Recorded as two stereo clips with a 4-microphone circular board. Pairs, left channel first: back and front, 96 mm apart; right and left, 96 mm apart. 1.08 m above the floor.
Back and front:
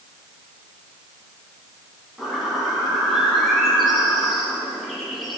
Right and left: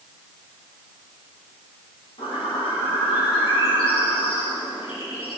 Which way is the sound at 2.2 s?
90° right.